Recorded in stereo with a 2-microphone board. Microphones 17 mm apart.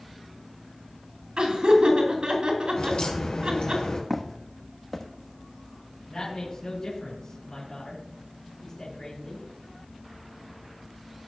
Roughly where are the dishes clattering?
I don't hear dishes clattering.